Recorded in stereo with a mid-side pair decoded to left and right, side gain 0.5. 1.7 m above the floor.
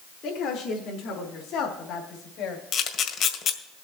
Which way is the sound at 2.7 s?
65° left.